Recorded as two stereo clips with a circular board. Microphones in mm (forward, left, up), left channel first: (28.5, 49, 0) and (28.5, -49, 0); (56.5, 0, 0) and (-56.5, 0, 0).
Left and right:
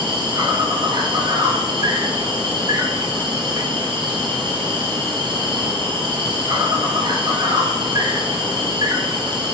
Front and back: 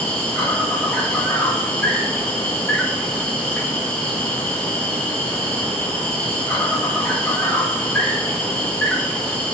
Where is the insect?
80° right, 0.9 m.